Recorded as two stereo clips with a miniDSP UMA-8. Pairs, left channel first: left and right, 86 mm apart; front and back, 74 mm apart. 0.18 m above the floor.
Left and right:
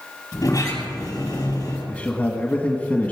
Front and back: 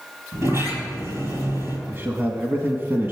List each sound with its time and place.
0.3 s a sliding door: 130° left, 4.5 m
1.9 s a man speaking: 150° left, 1.2 m